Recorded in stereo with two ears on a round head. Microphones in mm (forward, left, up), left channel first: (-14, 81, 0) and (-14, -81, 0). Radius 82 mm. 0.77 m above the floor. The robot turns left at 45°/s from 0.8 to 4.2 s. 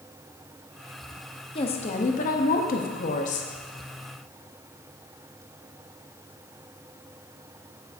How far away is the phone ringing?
I don't hear a phone ringing.